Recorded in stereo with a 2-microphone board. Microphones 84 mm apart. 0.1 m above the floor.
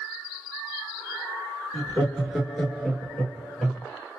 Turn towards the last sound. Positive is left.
turn(degrees=5)  # may be behind; listen again after turning